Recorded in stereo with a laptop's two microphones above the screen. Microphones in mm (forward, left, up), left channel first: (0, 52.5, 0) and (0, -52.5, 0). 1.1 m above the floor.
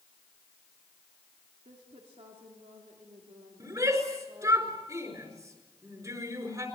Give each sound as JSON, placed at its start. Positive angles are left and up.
{"t": 1.6, "sound": "a woman speaking", "side_deg": -80, "distance_m": 3.0}
{"t": 3.6, "sound": "a shout", "side_deg": -35, "distance_m": 4.5}